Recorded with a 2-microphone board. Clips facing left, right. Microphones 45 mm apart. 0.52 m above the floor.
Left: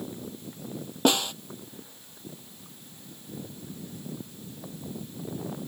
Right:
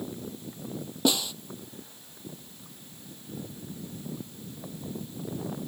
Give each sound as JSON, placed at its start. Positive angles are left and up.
{"t": 1.1, "sound": "a snare drum", "side_deg": 50}